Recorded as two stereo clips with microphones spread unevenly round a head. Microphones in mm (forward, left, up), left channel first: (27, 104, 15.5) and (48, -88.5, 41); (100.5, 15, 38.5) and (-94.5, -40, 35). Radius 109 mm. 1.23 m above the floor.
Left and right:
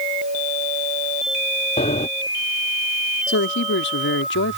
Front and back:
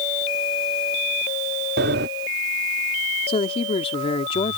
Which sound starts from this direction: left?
A woman speaking, at 3.3 s.